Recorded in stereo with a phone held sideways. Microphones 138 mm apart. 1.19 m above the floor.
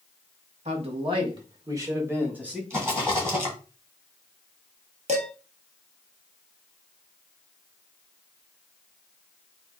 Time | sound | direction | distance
0.7 | a man speaking | 50° right (ahead or behind) | 1.3 m
2.7 | a rattle | 20° right (ahead or behind) | 2 m
5.1 | dishes clattering | 55° right (ahead or behind) | 1.1 m